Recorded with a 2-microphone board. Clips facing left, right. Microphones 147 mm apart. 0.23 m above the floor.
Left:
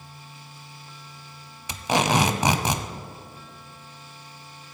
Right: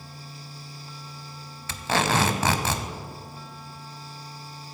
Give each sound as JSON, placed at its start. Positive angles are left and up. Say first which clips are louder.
{"t": 1.7, "sound": "tape being pulled", "louder": "left 2 dB", "side_deg": 15, "distance_m": 0.7}